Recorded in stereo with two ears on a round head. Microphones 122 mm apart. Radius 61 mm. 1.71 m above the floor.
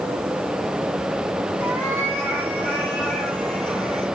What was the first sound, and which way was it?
A cat meowing, 15° left (ahead or behind).